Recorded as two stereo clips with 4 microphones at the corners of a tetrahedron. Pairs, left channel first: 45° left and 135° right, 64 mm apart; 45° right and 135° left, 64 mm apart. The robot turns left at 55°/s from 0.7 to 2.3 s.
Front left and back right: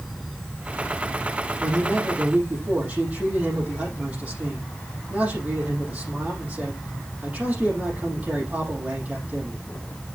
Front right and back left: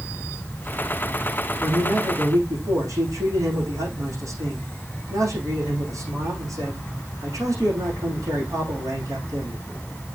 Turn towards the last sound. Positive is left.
turn(degrees=160)